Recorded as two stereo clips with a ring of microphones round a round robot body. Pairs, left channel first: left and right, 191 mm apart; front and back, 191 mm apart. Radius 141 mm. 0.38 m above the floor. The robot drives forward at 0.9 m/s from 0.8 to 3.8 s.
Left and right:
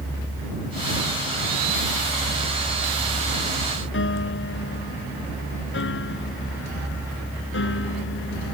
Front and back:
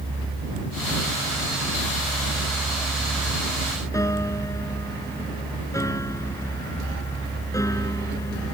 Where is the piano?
75° left.